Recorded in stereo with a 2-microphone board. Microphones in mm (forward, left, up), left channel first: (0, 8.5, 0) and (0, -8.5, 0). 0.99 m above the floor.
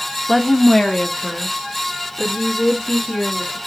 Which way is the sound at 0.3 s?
5° left (ahead or behind).